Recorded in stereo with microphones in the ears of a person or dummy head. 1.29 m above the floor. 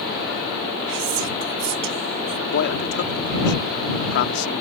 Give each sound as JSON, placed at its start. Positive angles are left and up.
{"t": 0.9, "sound": "whispering", "side_deg": -70}
{"t": 2.5, "sound": "a man speaking", "side_deg": 55}